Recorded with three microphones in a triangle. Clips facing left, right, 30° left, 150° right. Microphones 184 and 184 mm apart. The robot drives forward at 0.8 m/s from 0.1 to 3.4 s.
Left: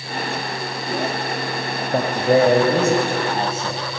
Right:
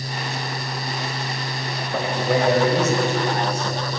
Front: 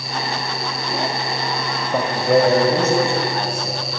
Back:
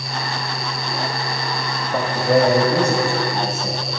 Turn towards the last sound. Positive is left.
turn(degrees=150)